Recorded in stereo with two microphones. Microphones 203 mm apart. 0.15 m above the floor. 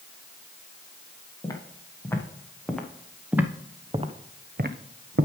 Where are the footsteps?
15° left (ahead or behind), 3 m; by 5.3 s 80° right, 1.2 m.